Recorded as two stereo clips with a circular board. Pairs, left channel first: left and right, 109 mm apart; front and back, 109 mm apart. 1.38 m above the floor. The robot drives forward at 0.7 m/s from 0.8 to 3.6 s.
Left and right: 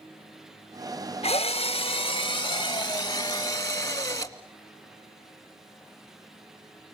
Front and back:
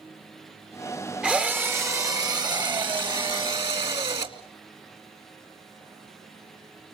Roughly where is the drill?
Left.